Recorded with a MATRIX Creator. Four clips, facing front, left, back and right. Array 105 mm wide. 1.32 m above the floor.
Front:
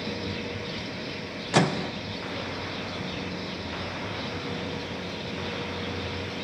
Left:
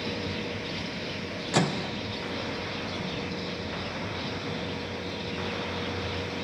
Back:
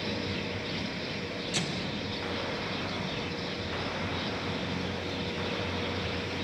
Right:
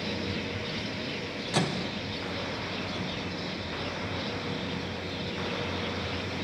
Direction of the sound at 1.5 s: 15° left.